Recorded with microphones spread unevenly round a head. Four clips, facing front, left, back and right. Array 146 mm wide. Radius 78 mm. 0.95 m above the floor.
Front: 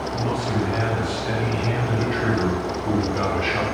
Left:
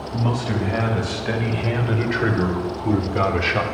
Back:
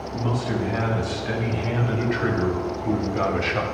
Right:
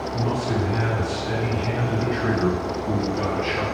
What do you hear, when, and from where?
0.1 s a man speaking: 80° left, 5.5 m